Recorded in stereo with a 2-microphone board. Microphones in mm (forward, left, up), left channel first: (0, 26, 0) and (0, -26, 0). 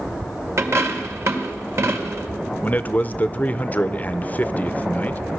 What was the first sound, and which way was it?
A dropped coin, 60° right (ahead or behind).